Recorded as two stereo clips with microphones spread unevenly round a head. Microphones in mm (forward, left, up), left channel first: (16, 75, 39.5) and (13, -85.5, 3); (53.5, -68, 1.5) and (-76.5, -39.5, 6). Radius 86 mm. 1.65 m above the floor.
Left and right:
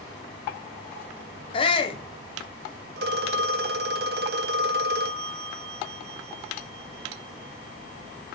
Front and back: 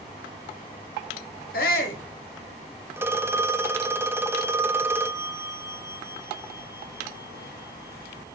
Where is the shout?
30° left, 1.3 m.